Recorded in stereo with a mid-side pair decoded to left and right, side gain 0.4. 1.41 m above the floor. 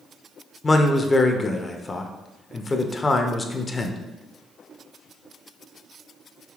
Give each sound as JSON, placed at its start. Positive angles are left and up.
{"t": 0.6, "sound": "a man speaking", "azimuth_deg": 35, "distance_m": 0.5}